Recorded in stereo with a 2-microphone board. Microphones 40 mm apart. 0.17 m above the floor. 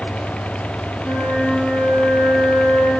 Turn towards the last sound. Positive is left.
turn(degrees=20)  # may be behind; listen again after turning